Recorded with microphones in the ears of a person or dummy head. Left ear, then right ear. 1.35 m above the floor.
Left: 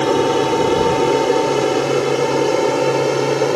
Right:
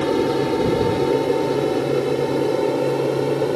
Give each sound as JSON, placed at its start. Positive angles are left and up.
{"t": 0.0, "sound": "an aircraft", "side_deg": 40}